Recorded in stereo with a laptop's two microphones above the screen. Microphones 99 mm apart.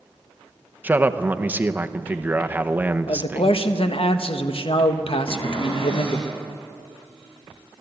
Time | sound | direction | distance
0.8 | a man speaking | 15° right (ahead or behind) | 0.7 m
3.1 | a man speaking | 65° left (ahead or behind) | 1.2 m
5.3 | a cupboard door | 55° left (ahead or behind) | 8.5 m